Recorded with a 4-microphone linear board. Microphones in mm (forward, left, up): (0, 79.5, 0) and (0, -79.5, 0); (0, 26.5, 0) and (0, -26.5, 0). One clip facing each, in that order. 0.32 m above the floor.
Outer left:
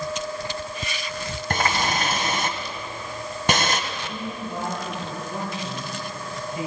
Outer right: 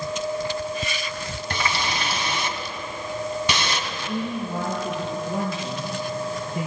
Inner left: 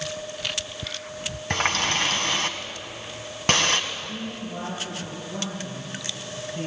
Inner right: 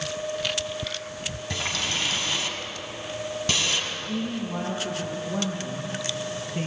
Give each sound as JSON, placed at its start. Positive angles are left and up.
{"t": 1.5, "sound": "a running tap", "side_deg": 50, "distance_m": 1.9}
{"t": 3.9, "sound": "a man speaking", "side_deg": -40, "distance_m": 7.0}